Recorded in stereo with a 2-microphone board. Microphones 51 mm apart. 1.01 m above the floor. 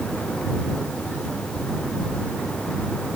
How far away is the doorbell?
No doorbell in this recording.